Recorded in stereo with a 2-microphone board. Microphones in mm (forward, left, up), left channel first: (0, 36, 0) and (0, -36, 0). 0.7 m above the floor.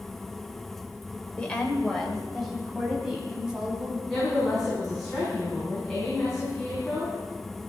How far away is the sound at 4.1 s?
About 7 m.